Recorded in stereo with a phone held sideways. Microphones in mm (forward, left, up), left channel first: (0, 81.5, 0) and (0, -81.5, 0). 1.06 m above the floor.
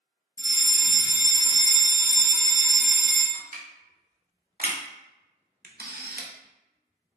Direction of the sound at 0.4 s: 25° right (ahead or behind).